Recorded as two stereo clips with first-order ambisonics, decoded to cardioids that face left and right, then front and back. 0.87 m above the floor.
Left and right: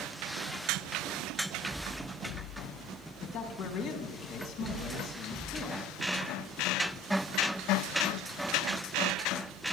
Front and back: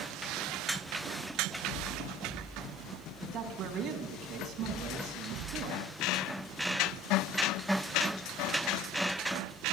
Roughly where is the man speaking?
Behind left.